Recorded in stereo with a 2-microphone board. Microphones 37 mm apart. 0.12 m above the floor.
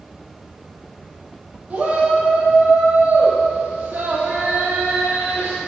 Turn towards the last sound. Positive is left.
turn(degrees=-70)  # may be behind; listen again after turning